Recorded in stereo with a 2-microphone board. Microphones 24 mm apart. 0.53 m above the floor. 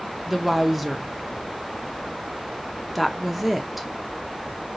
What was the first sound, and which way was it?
A woman speaking, 10° right (ahead or behind).